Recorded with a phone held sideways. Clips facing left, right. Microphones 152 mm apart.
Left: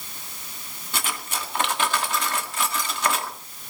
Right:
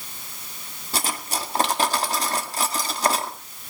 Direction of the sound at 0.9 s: 35° right (ahead or behind).